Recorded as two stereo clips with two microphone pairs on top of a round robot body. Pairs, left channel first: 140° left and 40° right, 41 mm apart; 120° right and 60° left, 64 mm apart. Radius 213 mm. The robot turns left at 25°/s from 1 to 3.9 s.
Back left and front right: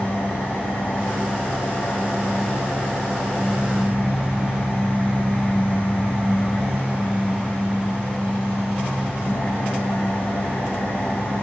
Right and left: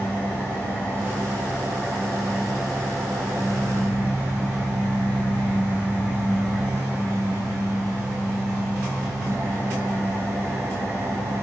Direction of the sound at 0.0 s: Straight behind.